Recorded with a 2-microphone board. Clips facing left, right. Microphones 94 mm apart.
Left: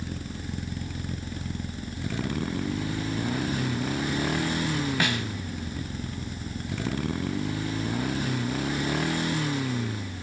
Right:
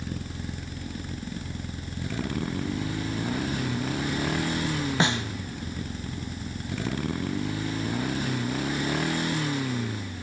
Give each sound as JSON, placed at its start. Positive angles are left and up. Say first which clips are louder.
{"t": 5.0, "sound": "a snare drum", "louder": "right 2 dB", "side_deg": -25, "distance_m": 0.7}